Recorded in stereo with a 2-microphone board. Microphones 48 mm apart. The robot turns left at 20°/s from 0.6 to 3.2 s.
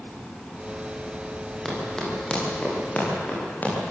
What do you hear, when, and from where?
1.6 s running footsteps: 10° left (ahead or behind), 9 m; by 3.7 s 35° left (ahead or behind), 11 m